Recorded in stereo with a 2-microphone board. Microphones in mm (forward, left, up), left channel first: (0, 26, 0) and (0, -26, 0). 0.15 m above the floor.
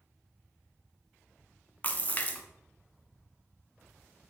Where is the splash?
30° left (ahead or behind), 0.5 m.